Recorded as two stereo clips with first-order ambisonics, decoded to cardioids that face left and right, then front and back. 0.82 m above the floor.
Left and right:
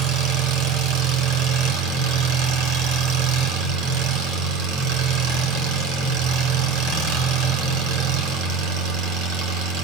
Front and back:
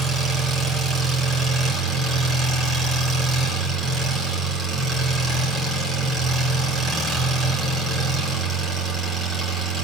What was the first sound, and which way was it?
An engine running, 110° right.